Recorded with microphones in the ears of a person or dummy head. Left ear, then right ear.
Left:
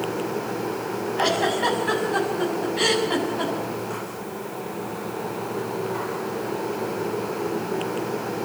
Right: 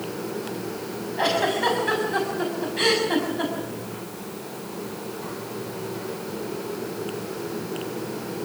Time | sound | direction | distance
1.2 | a giggle | 5° right (ahead or behind) | 6.5 m